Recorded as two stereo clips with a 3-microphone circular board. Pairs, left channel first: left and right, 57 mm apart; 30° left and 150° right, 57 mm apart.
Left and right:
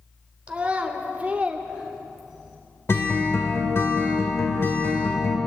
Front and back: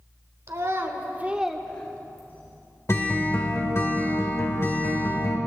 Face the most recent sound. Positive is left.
turn(degrees=55)